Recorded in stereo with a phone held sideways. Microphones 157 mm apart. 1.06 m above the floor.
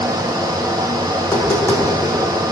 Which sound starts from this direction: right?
A fan, at 0.0 s.